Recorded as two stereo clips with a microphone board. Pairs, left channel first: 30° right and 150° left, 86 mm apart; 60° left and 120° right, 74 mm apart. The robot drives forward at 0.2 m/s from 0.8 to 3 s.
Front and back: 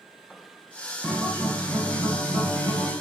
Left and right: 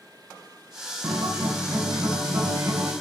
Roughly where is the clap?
I don't hear a clap.